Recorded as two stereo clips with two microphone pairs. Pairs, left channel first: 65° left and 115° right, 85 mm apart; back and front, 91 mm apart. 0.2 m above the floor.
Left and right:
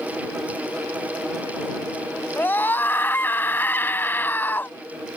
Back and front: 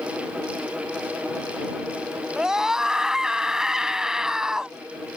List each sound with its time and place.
2.4 s a scream: 75° left